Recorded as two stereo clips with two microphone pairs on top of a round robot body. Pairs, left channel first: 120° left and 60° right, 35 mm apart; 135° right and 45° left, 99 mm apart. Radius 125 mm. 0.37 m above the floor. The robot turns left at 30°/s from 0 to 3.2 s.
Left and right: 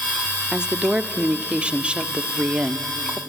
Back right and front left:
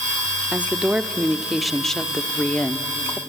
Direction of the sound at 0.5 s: 20° right.